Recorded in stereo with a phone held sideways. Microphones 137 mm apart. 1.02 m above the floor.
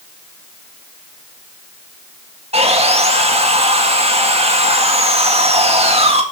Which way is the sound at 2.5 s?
50° right (ahead or behind).